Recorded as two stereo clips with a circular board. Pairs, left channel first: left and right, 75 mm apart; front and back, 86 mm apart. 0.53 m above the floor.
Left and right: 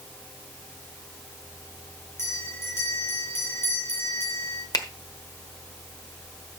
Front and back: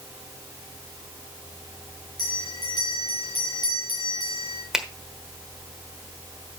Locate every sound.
2.2 s a bell: 35° left, 3.5 m
4.7 s a finger snap: 95° left, 1.2 m